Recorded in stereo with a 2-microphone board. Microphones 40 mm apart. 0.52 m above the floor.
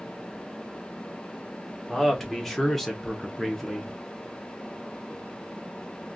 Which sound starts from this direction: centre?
A man speaking, at 1.9 s.